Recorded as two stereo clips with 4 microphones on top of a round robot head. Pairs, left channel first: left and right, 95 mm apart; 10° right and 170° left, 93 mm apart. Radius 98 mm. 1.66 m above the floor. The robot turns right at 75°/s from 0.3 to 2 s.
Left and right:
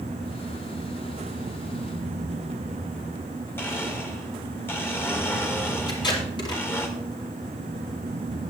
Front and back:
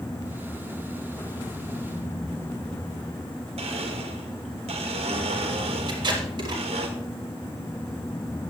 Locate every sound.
3.6 s a blender: 160° left, 1.9 m
5.9 s tape being pulled: 130° left, 4 m